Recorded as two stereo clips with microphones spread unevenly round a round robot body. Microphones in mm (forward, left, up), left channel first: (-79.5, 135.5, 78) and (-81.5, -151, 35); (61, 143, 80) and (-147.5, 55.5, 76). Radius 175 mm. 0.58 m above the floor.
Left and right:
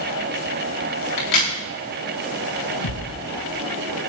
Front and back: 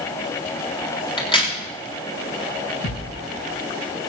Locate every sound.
1.2 s a crack: 90° left, 9 m
2.8 s a thud: 60° left, 6.5 m